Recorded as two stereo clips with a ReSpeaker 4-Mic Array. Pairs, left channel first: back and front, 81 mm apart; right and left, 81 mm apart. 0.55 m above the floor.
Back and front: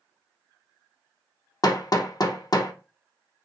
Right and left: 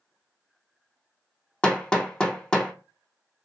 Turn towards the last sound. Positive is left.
turn(degrees=-165)